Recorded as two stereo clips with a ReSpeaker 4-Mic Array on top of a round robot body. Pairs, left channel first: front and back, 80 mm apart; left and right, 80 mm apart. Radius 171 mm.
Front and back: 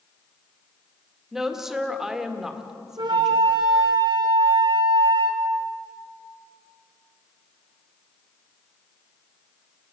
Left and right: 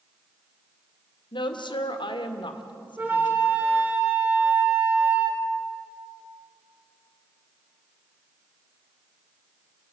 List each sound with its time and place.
1.3 s a woman speaking: 95° left, 2.0 m
3.0 s a flute: 155° right, 2.5 m